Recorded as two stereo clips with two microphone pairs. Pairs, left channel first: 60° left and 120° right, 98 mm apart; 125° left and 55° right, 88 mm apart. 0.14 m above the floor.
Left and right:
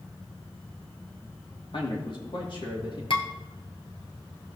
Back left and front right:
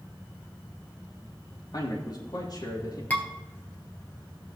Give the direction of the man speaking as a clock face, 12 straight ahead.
9 o'clock.